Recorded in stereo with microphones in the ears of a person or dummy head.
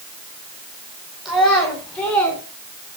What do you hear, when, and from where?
1.2 s a child speaking: centre (ahead or behind), 5 m; by 2.4 s 10° left (ahead or behind), 5 m